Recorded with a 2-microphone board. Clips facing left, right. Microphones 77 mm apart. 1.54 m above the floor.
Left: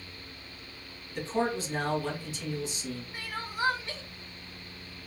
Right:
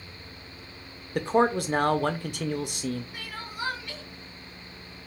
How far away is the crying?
About 0.8 m.